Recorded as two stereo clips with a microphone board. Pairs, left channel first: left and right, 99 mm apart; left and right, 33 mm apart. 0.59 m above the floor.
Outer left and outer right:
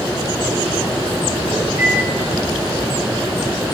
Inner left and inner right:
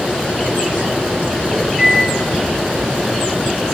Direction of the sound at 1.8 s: 25° right (ahead or behind).